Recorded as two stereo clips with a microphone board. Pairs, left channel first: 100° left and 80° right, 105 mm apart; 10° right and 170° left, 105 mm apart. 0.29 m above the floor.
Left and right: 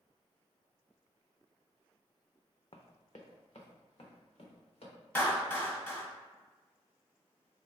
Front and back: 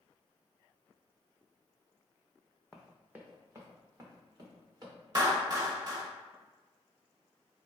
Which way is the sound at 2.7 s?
75° left.